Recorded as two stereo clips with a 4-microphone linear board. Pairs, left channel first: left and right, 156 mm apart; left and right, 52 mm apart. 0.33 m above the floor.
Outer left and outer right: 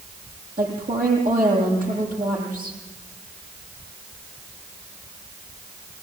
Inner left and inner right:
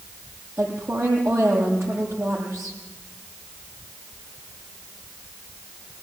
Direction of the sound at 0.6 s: 55° right (ahead or behind).